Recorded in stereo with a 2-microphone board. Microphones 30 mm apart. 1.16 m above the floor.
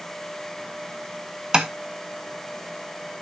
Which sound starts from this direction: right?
Tapping, at 1.5 s.